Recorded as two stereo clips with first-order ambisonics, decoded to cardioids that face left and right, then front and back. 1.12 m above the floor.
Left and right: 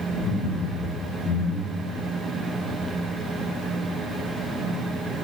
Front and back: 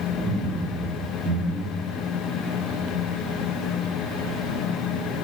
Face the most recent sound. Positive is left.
turn(degrees=-140)